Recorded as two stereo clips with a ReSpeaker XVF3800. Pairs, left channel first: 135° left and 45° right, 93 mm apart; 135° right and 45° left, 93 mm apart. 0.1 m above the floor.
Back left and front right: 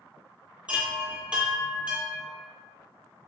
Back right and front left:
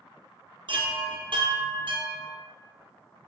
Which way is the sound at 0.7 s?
30° left.